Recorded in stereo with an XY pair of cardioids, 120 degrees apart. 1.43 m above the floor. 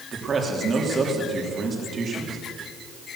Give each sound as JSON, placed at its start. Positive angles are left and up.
{"t": 0.1, "sound": "a man speaking", "azimuth_deg": -35, "distance_m": 3.0}